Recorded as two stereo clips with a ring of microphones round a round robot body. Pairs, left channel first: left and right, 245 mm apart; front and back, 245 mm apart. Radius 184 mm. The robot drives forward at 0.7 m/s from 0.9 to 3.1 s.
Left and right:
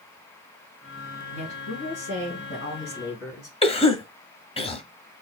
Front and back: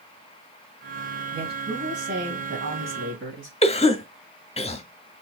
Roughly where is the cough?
Ahead left.